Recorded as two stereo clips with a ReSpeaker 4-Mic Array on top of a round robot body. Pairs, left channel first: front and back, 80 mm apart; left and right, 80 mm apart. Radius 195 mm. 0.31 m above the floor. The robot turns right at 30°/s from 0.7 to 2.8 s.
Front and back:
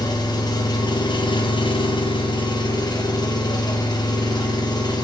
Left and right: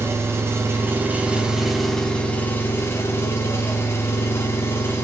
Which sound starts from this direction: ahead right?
An engine running, at 0.0 s.